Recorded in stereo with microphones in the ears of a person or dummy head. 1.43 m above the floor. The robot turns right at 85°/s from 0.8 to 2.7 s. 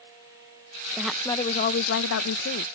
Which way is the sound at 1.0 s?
10° right.